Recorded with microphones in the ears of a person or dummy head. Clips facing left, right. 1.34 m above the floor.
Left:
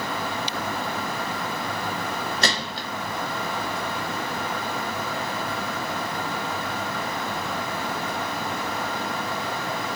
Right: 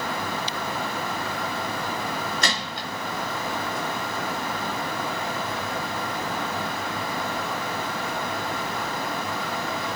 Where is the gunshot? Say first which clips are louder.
Left 2 dB; 35° left (ahead or behind), 0.7 m.